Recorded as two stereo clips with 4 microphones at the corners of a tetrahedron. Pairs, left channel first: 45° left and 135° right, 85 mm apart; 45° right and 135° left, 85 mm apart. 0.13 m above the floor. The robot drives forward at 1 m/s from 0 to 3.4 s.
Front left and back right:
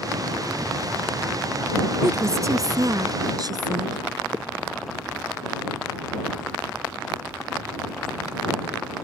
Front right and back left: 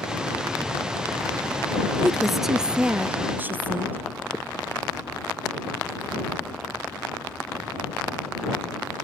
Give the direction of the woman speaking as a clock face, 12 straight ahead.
4 o'clock.